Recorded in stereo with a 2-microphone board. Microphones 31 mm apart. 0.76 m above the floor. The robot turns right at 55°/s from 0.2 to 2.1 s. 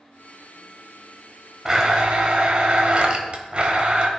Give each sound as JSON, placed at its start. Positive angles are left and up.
{"t": 1.6, "sound": "a blender", "side_deg": -20, "distance_m": 1.0}